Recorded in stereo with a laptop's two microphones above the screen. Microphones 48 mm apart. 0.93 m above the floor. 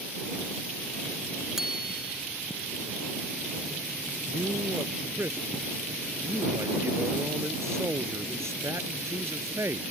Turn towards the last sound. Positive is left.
turn(degrees=-65)  # may be behind; listen again after turning